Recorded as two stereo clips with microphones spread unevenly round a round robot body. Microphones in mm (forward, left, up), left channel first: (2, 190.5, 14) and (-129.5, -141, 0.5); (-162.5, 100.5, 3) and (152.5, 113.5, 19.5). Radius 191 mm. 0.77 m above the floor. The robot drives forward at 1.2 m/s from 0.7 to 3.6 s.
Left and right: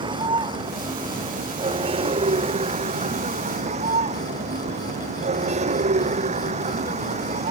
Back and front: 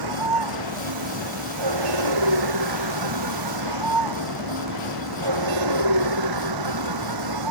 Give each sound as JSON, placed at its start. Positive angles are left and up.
{"t": 0.0, "sound": "a vehicle", "azimuth_deg": -35}